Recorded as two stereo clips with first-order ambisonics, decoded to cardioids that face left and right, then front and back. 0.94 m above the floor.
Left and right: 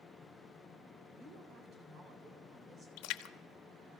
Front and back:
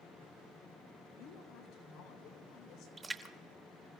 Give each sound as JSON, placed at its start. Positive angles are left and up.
{"t": 1.2, "sound": "a woman speaking", "azimuth_deg": -35, "distance_m": 3.5}
{"t": 3.0, "sound": "a splash", "azimuth_deg": 105, "distance_m": 0.9}